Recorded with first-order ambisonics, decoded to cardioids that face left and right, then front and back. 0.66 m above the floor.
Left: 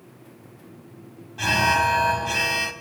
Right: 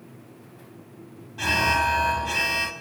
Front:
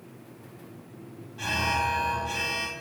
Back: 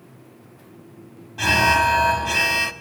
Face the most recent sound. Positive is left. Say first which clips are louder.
# left 2 dB, back 10 dB
turn(degrees=180)